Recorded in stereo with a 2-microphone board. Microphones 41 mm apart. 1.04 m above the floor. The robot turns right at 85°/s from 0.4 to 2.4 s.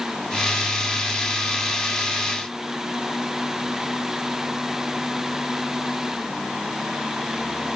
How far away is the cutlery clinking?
No cutlery clinking in this recording.